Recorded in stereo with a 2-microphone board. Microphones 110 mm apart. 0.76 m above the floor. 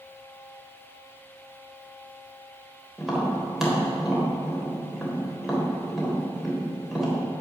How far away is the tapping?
About 3.5 m.